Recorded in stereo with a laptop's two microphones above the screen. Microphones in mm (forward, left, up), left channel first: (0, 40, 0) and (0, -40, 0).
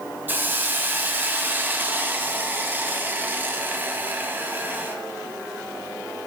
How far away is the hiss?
About 0.7 m.